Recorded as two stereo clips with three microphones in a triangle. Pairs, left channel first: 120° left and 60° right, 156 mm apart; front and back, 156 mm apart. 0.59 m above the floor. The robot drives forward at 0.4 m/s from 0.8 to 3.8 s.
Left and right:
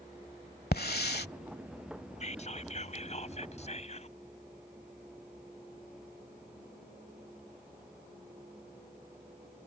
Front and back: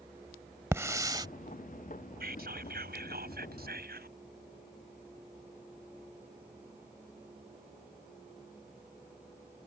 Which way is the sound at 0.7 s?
105° left.